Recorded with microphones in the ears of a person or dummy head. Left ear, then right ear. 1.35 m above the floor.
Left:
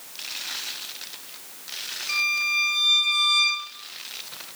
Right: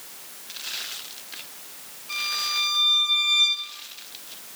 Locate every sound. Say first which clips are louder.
2.1 s a violin: left 3 dB; 60° left (ahead or behind), 3.5 m